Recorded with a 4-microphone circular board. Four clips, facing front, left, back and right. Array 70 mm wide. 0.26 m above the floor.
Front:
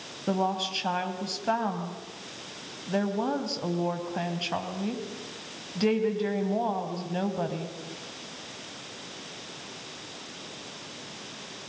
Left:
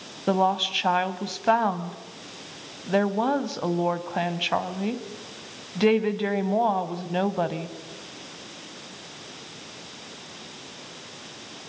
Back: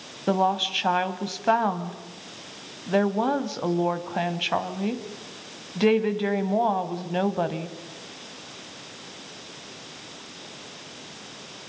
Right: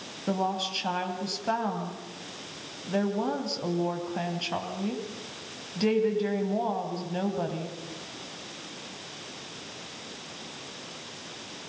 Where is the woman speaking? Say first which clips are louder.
Left 6 dB, back 5 dB; 130° left, 1.4 m.